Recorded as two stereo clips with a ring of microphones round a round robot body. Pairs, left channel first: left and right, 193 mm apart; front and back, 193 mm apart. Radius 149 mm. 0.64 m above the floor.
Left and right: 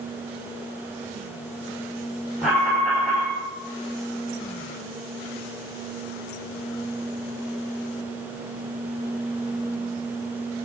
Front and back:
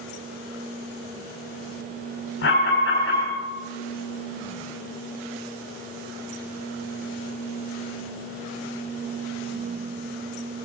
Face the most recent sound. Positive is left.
turn(degrees=0)